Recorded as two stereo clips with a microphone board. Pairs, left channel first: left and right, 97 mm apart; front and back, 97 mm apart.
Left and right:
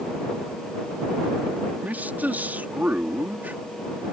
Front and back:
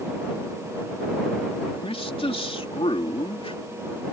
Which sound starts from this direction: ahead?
A man speaking, at 1.8 s.